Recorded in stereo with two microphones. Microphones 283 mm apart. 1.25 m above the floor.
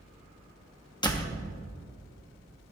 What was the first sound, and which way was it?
A door slam, 15° left (ahead or behind).